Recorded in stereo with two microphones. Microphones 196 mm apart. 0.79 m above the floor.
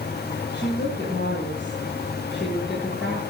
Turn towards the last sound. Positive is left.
turn(degrees=80)